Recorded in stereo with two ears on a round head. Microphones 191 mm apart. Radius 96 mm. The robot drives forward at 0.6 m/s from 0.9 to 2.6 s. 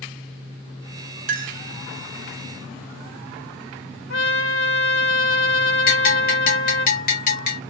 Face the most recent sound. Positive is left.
turn(degrees=45)  # may be behind; listen again after turning